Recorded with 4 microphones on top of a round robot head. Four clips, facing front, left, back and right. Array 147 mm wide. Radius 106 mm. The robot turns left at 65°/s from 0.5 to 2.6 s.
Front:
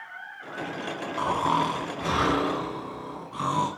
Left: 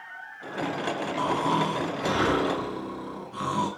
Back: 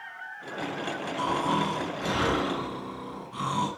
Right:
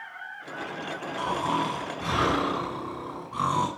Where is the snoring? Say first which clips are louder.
Left 1 dB, front 3 dB; 30° left, 7.5 m; by 3.7 s 60° right, 7.5 m.